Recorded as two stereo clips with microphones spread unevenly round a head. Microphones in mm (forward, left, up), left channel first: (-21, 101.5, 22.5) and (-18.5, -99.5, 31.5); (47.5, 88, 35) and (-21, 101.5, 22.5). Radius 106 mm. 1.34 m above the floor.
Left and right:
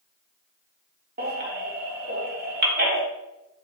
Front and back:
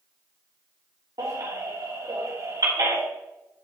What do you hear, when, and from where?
1.2 s a baby crying: 135° right, 3 m